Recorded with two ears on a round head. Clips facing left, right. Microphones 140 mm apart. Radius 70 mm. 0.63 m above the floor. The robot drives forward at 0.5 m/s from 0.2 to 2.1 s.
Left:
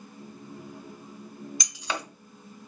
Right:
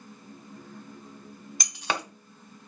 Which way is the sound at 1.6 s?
45° right (ahead or behind).